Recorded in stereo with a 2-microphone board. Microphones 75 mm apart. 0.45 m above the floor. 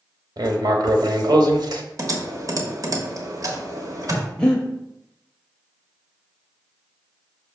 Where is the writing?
70° right (ahead or behind), 1.0 m.